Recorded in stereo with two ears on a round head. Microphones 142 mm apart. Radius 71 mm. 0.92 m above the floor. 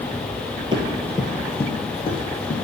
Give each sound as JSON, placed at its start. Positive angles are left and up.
{"t": 0.7, "sound": "running footsteps", "side_deg": -30, "distance_m": 1.3}